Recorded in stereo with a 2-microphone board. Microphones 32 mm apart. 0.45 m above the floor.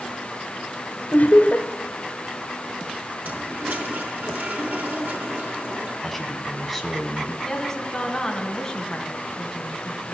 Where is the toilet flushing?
70° right (ahead or behind), 4.5 m.